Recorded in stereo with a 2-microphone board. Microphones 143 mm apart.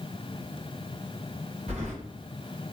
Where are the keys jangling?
50° right (ahead or behind), 1.6 m.